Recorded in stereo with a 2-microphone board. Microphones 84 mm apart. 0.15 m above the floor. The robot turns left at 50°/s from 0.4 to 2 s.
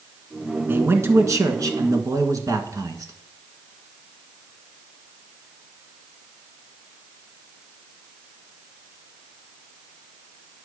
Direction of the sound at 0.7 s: 35° right.